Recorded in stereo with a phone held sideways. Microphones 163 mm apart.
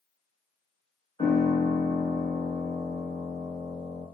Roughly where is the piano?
Left.